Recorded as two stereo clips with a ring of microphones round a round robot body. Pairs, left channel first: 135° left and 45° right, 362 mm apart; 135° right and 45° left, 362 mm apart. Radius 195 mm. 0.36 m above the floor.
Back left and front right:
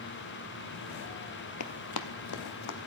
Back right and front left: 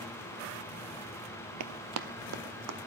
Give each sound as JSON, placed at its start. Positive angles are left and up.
{"t": 1.6, "sound": "running footsteps", "azimuth_deg": 90, "distance_m": 0.5}